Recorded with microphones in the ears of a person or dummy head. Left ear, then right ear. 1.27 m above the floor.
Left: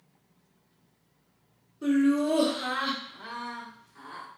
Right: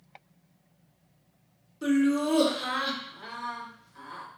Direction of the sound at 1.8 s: 35° right (ahead or behind).